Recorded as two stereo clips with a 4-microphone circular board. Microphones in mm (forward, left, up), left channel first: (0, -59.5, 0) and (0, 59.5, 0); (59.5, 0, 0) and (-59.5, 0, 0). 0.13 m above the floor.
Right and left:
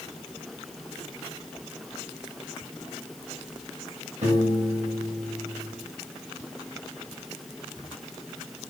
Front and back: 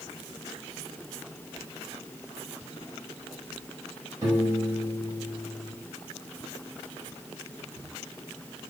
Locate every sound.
4.2 s a piano: 120° left, 4 m